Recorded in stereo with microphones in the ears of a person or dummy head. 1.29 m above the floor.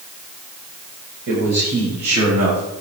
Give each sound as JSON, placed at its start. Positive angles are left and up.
{"t": 1.3, "sound": "a man speaking", "side_deg": -55, "distance_m": 7.5}